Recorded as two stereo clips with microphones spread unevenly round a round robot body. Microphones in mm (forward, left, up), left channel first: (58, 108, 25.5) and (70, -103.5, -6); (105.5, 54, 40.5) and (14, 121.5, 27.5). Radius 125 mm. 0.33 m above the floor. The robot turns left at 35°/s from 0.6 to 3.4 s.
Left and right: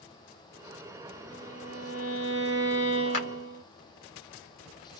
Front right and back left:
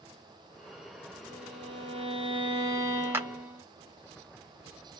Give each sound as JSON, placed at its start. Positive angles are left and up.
{"t": 1.3, "sound": "a violin", "azimuth_deg": 140, "distance_m": 1.8}
{"t": 3.1, "sound": "a clap", "azimuth_deg": 80, "distance_m": 1.3}